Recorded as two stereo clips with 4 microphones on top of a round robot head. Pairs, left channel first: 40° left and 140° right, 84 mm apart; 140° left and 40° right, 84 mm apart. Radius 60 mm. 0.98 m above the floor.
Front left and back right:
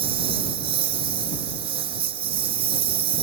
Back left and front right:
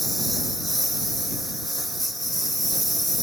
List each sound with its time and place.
0.0 s a lawn mower: 130° right